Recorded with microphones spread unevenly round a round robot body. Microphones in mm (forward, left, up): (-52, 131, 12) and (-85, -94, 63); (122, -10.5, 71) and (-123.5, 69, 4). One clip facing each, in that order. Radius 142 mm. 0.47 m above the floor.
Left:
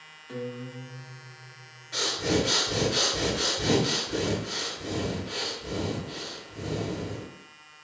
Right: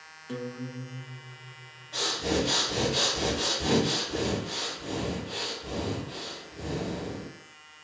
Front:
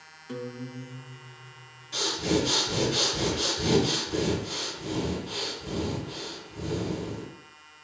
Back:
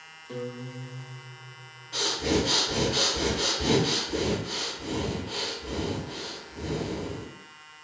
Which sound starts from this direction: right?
A guitar, at 0.3 s.